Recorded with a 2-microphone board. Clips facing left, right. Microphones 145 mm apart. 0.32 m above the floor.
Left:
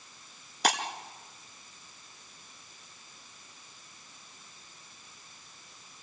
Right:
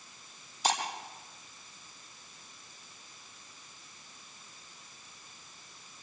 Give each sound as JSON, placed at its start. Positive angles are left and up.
{"t": 0.6, "sound": "breaking glass", "side_deg": 75, "distance_m": 2.0}